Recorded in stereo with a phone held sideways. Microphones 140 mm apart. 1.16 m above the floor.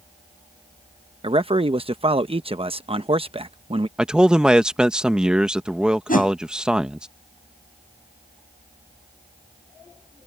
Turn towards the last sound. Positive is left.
turn(degrees=75)  # may be behind; listen again after turning